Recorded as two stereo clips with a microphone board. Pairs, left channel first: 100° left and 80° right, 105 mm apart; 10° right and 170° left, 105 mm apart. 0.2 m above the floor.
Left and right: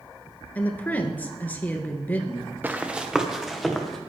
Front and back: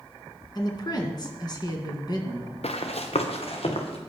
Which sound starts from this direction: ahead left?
A woman speaking, at 0.6 s.